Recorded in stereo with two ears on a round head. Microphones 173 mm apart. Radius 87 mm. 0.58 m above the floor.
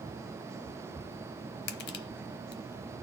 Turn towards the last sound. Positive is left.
turn(degrees=60)  # may be behind; listen again after turning